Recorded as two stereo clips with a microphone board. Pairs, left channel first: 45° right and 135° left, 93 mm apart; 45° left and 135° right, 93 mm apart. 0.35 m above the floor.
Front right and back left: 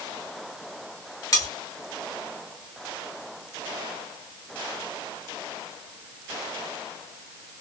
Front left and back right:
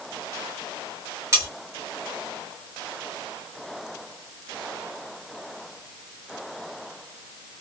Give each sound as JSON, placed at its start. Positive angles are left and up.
{"t": 1.3, "sound": "cutlery clinking", "azimuth_deg": -85, "distance_m": 1.2}